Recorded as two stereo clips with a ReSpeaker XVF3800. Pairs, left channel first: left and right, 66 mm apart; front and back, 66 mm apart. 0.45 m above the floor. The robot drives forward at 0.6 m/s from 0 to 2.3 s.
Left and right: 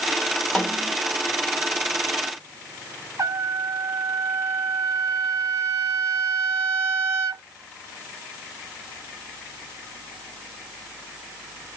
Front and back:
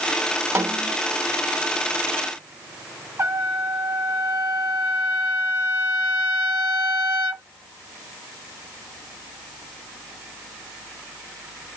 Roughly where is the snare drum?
Behind.